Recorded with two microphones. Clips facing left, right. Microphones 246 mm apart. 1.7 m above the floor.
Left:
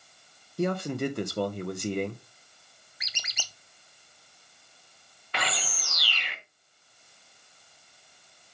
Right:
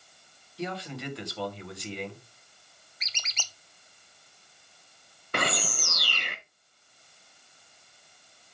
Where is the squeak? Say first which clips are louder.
Even; 10° left (ahead or behind), 0.7 m.